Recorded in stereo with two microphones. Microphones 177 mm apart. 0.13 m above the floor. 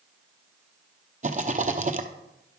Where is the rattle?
45° right (ahead or behind), 0.7 m.